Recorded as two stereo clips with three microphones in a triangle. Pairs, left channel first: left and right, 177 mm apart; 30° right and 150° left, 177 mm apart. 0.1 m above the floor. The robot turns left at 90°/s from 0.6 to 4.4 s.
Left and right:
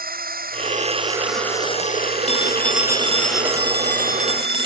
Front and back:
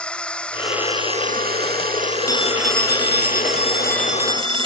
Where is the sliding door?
No sliding door in this recording.